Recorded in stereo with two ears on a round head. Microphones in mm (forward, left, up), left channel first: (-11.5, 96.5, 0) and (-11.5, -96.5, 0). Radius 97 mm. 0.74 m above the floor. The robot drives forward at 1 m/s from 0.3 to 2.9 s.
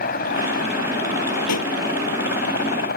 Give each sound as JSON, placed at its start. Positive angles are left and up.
{"t": 0.0, "sound": "a helicopter", "side_deg": 40}
{"t": 1.5, "sound": "a pop", "side_deg": 85}